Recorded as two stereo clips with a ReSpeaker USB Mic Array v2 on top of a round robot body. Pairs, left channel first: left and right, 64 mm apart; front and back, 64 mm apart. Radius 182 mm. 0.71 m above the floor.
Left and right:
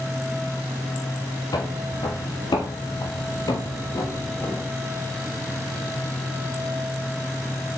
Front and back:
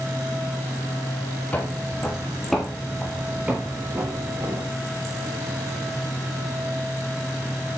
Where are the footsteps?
65° left, 2 m; by 4.7 s 140° left, 1.8 m.